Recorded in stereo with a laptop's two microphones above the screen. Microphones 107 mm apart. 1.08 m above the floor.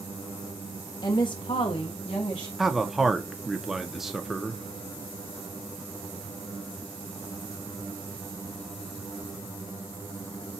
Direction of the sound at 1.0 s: 40° left (ahead or behind).